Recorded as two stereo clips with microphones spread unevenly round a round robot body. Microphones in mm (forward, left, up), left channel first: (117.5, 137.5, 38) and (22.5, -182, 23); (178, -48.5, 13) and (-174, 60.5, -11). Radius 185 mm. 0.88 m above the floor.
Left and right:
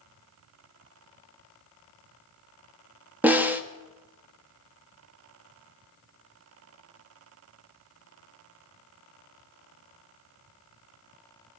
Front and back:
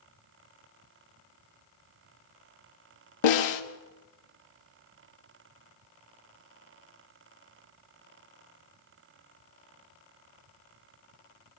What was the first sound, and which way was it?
A snare drum, 25° right.